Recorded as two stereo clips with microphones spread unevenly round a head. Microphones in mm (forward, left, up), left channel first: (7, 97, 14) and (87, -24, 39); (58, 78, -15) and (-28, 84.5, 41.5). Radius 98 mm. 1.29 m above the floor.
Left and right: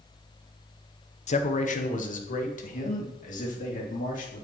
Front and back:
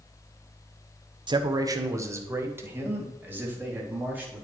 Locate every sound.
1.3 s a man speaking: 120° left, 0.9 m; by 4.5 s 100° left, 4 m